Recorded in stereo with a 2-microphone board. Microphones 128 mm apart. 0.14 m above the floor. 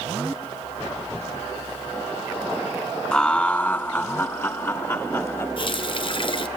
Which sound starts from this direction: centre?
Laughter, at 3.1 s.